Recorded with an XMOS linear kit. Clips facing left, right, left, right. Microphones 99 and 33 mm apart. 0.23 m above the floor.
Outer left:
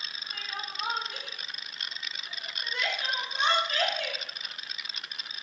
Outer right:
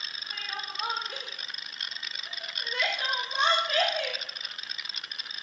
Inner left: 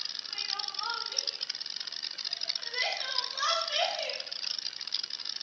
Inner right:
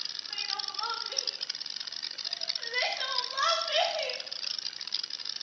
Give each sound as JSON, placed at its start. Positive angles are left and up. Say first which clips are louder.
{"t": 0.3, "sound": "crying", "louder": "outer right 1 dB, inner right 1 dB", "side_deg": -85, "distance_m": 4.0}